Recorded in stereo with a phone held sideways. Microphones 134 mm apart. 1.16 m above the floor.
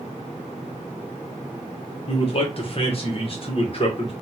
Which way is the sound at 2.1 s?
45° left (ahead or behind).